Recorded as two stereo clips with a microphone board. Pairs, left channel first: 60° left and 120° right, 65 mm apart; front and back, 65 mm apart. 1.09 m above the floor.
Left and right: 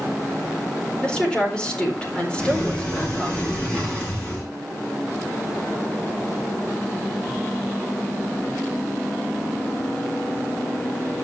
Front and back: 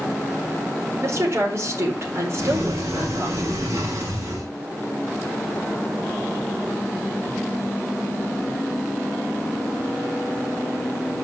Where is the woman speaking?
135° left, 4.5 m.